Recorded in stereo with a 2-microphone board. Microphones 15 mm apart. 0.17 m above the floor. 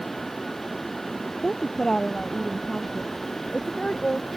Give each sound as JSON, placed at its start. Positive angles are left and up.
{"t": 1.4, "sound": "a woman speaking", "side_deg": 40}